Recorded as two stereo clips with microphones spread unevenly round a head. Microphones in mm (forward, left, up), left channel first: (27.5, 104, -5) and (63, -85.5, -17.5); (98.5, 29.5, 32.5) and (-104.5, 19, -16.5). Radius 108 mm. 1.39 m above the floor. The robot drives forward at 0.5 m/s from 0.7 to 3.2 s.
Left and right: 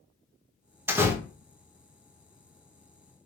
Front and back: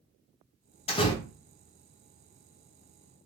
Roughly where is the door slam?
Ahead.